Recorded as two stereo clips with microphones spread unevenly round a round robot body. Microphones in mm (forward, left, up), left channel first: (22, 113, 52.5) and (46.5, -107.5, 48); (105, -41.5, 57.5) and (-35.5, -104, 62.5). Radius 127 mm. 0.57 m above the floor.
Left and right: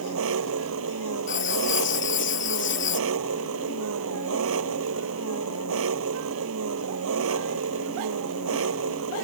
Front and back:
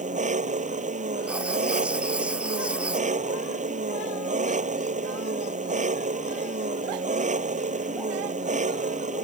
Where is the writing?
120° left.